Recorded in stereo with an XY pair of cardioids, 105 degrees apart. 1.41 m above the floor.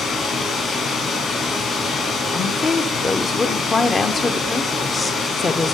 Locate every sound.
0.0 s running water: 55° left, 4 m
2.3 s a woman speaking: 30° left, 0.6 m